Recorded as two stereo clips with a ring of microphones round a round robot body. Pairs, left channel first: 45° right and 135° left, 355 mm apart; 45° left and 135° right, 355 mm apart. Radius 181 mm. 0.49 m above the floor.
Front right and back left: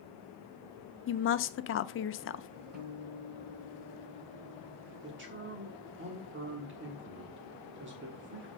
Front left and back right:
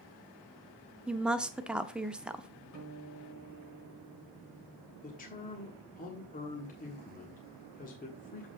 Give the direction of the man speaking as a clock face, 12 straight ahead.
9 o'clock.